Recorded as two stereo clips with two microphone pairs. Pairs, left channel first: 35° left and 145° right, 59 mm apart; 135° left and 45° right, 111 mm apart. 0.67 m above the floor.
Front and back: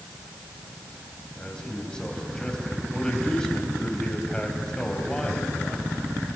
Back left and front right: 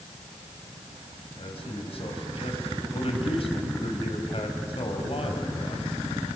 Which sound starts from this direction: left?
A man speaking, at 1.4 s.